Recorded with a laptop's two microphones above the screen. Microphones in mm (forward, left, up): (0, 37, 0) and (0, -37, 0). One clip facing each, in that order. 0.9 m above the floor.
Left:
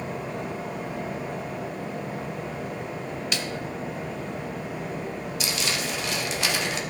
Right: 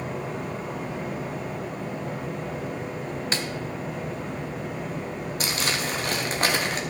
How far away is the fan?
About 4.5 m.